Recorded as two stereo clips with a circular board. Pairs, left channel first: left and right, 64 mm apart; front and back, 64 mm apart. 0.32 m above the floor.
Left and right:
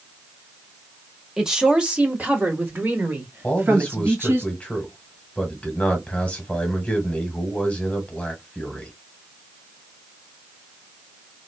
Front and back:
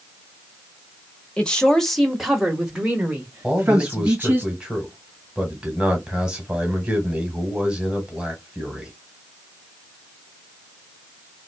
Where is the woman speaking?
25° right, 1.0 m; by 4.4 s 125° right, 1.9 m.